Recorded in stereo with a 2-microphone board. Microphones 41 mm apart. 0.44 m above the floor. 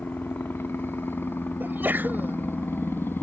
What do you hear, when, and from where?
0.0 s a helicopter: 65° left (ahead or behind)
1.6 s a sneeze: 60° right (ahead or behind)